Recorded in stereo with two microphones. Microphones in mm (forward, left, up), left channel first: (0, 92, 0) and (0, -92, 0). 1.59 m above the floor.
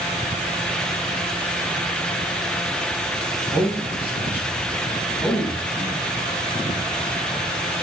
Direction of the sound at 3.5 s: 10° right (ahead or behind).